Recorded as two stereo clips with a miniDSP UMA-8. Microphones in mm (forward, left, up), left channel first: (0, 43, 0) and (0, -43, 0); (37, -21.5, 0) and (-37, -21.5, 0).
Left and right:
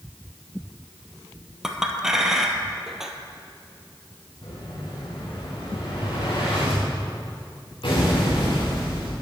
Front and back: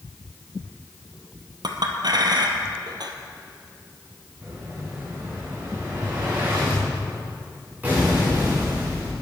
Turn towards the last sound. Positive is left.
turn(degrees=115)